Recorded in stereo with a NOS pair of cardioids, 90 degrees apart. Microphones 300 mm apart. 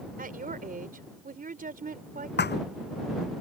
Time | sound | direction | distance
0.2 | a woman speaking | 30° right | ?
2.4 | a thud | 35° left | ?